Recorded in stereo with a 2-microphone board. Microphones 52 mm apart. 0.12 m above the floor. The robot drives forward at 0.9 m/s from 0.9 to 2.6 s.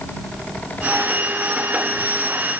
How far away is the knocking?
No knocking in this recording.